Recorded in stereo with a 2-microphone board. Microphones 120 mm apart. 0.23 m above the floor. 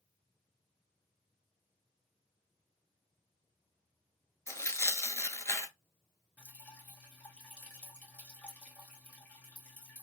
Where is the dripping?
15° left (ahead or behind), 1.1 m.